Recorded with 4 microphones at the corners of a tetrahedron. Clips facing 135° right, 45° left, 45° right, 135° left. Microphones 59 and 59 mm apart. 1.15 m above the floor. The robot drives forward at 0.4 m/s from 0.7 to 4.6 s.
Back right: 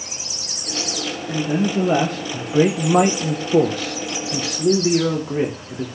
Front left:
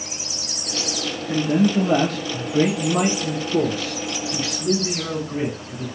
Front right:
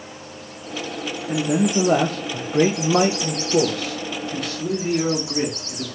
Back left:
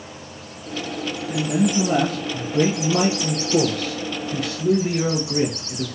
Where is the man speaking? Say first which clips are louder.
Front left 2 dB, front right 1 dB; 40° right, 0.8 m; by 5.9 s 145° right, 0.9 m.